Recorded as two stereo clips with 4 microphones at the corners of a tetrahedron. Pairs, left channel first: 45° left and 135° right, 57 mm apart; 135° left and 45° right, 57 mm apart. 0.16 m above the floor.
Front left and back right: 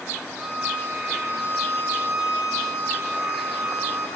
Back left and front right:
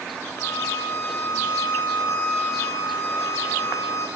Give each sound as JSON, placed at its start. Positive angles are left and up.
{"t": 0.4, "sound": "a violin", "azimuth_deg": 145, "distance_m": 9.0}